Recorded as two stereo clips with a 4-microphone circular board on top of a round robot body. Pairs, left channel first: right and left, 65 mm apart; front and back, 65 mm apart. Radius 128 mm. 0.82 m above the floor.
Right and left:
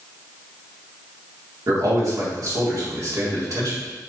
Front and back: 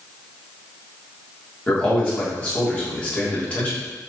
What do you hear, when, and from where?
1.7 s a man speaking: 65° left, 1.7 m